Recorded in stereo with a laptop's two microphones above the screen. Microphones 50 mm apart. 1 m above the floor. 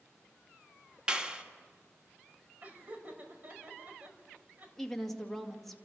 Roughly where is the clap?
Centre.